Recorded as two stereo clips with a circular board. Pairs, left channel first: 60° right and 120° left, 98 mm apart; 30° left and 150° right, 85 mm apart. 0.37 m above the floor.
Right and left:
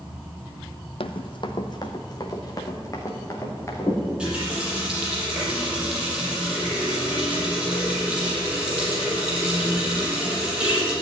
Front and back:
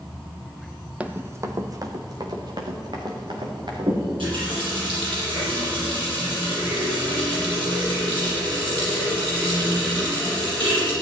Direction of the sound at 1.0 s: 75° right.